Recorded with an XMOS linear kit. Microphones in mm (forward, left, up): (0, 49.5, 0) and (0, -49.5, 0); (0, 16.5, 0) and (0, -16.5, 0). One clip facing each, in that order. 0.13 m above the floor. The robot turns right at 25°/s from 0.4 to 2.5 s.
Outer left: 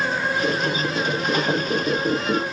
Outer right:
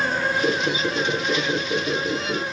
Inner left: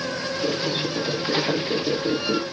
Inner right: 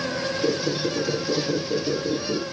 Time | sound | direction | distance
0.4 | a squeak | 5° right | 1.7 m